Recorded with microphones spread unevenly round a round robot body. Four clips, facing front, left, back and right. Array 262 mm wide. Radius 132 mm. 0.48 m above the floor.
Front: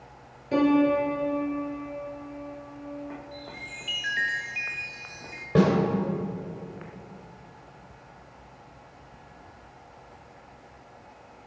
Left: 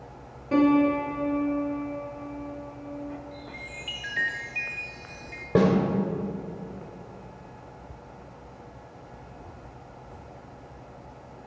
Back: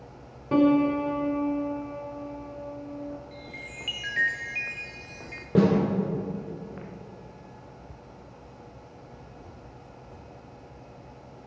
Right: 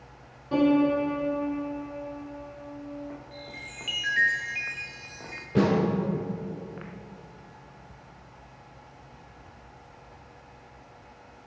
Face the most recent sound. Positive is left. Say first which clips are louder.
# left 2 dB, even
turn(degrees=110)